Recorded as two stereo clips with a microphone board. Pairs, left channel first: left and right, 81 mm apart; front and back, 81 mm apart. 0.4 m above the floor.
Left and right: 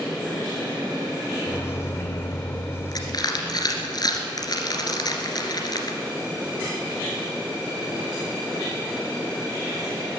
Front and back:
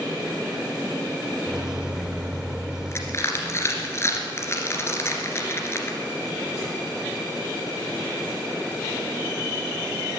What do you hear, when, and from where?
1.5 s a microwave: 105° left, 0.7 m
2.9 s crushing: 55° left, 2 m